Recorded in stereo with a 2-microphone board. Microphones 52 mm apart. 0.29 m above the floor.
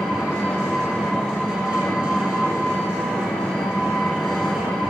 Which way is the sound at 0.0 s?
Centre (ahead or behind).